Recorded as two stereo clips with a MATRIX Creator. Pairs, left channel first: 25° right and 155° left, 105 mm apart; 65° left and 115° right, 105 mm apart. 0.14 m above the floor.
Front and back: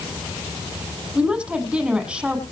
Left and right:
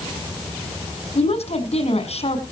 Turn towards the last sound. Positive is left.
turn(degrees=75)